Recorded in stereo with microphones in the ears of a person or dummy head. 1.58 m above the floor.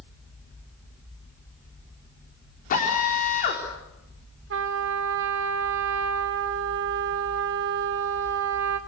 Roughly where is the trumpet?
Right.